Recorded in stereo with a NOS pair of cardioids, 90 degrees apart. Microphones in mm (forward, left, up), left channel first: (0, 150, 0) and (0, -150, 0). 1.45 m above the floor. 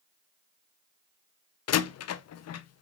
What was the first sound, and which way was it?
A door slam, 60° left.